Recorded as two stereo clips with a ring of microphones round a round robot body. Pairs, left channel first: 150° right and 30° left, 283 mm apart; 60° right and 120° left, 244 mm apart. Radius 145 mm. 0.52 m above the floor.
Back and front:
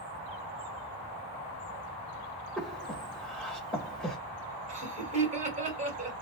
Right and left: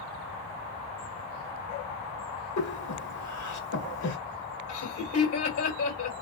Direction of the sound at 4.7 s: 35° right.